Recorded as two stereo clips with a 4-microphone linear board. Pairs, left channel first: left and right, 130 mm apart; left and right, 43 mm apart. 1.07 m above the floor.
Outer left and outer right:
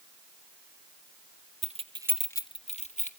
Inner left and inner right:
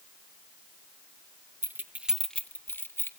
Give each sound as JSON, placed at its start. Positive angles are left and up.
{"t": 1.6, "sound": "keys jangling", "side_deg": -60, "distance_m": 1.0}